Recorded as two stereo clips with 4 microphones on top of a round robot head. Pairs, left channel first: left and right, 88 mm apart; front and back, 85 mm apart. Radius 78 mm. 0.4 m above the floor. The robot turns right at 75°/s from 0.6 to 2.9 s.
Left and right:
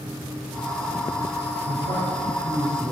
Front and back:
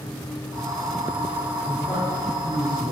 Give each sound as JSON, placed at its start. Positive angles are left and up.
{"t": 1.7, "sound": "a man speaking", "azimuth_deg": -105, "distance_m": 2.5}